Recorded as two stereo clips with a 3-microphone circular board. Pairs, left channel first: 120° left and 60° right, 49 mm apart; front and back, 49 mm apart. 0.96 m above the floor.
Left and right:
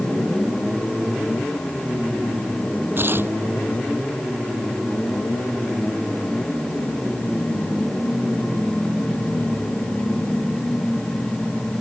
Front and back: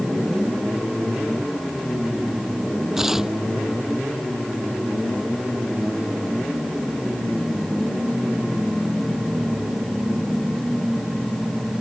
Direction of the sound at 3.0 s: 100° right.